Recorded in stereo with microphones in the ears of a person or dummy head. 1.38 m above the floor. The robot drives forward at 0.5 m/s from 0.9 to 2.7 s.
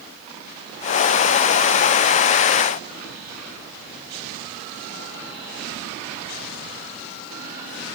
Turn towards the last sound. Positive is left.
No sound to turn to.